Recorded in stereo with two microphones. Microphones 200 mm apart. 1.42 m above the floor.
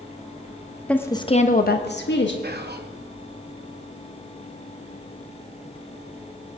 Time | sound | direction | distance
0.9 | a woman speaking | 5° left (ahead or behind) | 0.8 m
2.4 | whispering | 60° right (ahead or behind) | 0.8 m